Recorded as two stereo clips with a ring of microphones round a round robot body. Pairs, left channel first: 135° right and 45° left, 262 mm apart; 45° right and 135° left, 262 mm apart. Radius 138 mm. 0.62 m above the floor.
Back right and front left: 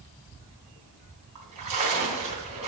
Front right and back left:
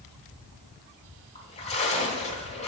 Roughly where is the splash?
Ahead.